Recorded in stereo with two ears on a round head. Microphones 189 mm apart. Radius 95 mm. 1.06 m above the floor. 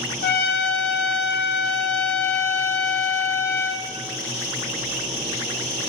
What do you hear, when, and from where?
0.2 s a trumpet: 45° left (ahead or behind), 0.9 m